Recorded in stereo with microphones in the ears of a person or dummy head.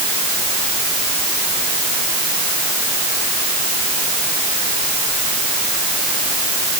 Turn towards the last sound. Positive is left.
No sound to turn to.